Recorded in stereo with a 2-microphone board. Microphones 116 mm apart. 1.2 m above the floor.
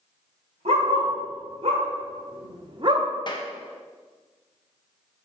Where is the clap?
40° left (ahead or behind), 0.9 m.